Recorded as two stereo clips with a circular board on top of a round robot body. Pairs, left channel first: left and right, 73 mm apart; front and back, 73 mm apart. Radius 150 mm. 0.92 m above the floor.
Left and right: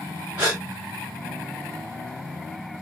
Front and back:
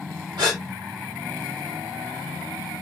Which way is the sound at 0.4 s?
165° right.